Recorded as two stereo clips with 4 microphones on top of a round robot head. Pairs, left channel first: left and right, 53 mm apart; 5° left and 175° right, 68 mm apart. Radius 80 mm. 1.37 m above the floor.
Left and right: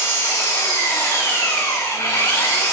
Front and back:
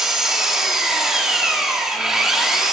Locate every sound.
0.0 s an engine running: 100° left, 1.8 m